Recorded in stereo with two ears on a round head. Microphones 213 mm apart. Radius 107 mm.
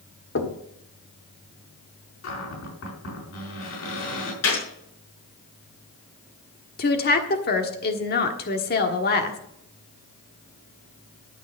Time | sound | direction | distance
0.3 | knocking | 55° left (ahead or behind) | 1.6 m
2.2 | a cupboard door | 65° left (ahead or behind) | 4.5 m
4.4 | a gunshot | 70° left (ahead or behind) | 6 m
6.8 | a woman speaking | 40° left (ahead or behind) | 1.3 m